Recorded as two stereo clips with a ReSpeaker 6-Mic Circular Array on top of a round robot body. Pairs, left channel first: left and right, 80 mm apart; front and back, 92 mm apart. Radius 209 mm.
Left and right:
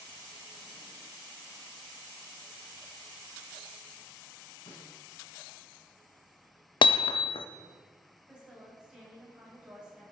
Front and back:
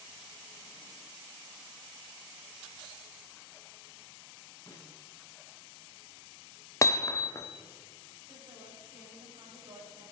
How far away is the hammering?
About 0.5 m.